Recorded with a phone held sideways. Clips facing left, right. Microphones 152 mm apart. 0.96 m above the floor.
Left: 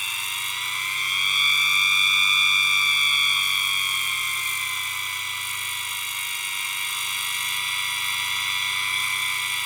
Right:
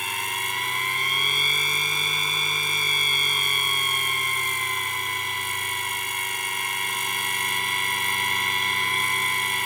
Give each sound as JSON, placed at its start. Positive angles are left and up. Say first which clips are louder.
{"t": 0.0, "sound": "a machine running", "louder": "right 7 dB", "side_deg": -60}